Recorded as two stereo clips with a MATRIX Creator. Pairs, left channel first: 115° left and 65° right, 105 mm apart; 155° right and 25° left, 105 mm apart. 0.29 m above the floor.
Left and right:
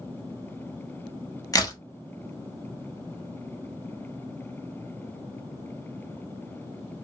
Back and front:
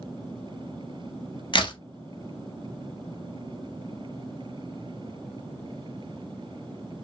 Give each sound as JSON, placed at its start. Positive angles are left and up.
{"t": 1.5, "sound": "a crack", "azimuth_deg": 165, "distance_m": 0.6}